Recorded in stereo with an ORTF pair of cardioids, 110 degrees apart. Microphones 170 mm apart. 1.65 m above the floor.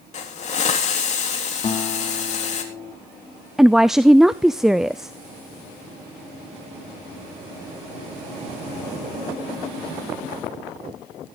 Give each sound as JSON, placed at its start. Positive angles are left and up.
{"t": 0.1, "sound": "a hiss", "azimuth_deg": 45, "distance_m": 3.5}
{"t": 1.6, "sound": "a guitar", "azimuth_deg": 30, "distance_m": 3.5}
{"t": 3.6, "sound": "a woman speaking", "azimuth_deg": -5, "distance_m": 0.5}